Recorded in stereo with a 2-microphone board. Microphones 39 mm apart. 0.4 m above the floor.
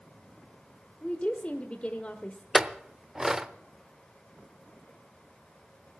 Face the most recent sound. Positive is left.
turn(degrees=-15)  # may be behind; listen again after turning